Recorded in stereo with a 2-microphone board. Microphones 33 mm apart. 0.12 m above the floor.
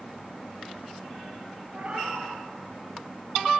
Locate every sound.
1.7 s a cat meowing: 45° right (ahead or behind), 1.0 m